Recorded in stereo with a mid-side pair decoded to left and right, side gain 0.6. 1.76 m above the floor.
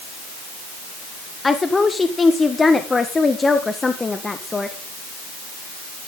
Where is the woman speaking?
20° left, 1.6 m.